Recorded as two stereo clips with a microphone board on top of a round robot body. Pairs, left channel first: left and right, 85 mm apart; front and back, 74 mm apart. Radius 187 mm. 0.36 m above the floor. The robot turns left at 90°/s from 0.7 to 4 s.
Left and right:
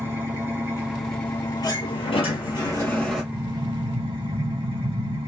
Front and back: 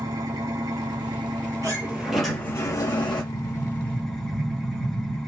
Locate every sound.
0.0 s an engine running: 150° right, 3 m; by 5.3 s 85° right, 3 m
1.6 s a sliding door: 140° left, 3 m; by 3.2 s 5° right, 3 m
3.3 s an explosion: 20° left, 1.7 m; by 5.2 s 40° right, 1.7 m